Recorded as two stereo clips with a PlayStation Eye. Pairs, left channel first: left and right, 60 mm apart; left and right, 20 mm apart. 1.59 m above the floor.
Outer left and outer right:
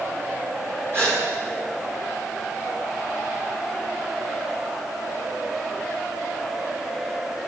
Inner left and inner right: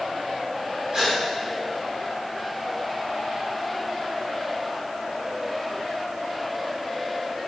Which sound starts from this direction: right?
A gasp, at 0.9 s.